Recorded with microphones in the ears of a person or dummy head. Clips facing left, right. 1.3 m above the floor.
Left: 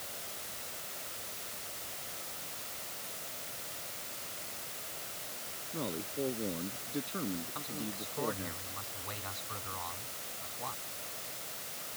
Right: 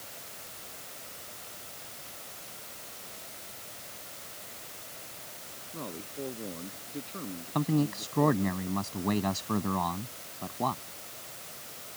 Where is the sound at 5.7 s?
15° left (ahead or behind).